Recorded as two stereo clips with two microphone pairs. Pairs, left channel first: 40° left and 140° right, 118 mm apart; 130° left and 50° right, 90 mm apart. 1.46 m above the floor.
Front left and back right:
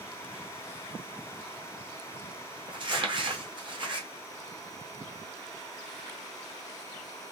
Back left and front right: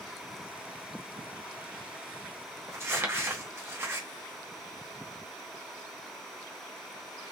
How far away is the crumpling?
About 0.7 m.